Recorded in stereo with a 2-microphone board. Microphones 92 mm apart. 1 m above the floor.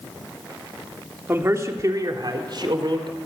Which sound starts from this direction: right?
A man speaking, at 1.3 s.